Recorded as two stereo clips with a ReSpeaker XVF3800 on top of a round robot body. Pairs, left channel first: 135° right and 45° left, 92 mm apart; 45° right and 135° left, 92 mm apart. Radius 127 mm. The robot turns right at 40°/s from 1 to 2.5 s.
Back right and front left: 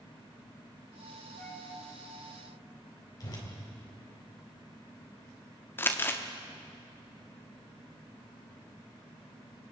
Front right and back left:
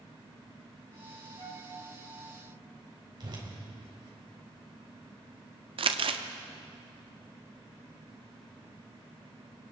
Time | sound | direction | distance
1.4 | a flute | 150° left | 3.5 m
3.2 | a whoosh | 175° left | 3.5 m
5.8 | crumpling | 160° left | 1.0 m